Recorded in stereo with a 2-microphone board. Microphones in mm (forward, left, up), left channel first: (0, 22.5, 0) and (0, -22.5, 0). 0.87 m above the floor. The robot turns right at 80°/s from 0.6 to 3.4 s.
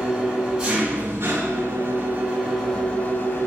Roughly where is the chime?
No chime in this recording.